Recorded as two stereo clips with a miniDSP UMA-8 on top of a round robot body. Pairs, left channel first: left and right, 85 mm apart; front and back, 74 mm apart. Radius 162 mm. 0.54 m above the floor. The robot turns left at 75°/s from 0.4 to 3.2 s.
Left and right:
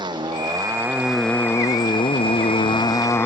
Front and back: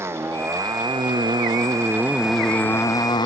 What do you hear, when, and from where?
0.0 s a motorcycle: 125° right; by 3.3 s 25° left